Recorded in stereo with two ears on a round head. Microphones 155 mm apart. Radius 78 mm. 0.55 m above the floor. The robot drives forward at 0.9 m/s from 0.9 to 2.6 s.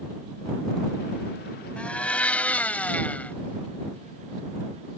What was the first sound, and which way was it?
A blender, 5° left (ahead or behind).